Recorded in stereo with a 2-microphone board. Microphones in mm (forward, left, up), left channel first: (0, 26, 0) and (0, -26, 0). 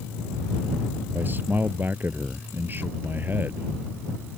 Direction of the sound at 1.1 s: 40° right (ahead or behind).